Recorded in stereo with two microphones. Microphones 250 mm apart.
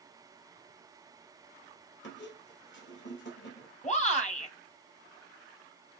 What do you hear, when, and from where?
2.0 s a squeak: 45° left (ahead or behind), 1.5 m
3.8 s a shout: 30° left (ahead or behind), 1.8 m